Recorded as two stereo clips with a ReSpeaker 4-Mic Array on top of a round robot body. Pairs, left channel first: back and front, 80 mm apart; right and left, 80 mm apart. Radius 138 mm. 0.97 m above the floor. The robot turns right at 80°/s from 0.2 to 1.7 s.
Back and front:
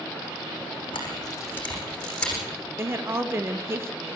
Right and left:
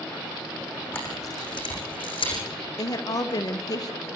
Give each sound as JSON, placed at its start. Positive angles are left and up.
{"t": 0.9, "sound": "a camera shutter", "azimuth_deg": -160, "distance_m": 9.0}
{"t": 2.8, "sound": "a woman speaking", "azimuth_deg": -55, "distance_m": 1.6}